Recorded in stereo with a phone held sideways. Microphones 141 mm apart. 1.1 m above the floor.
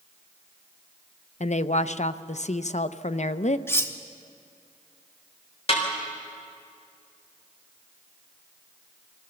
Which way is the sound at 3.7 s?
15° left (ahead or behind).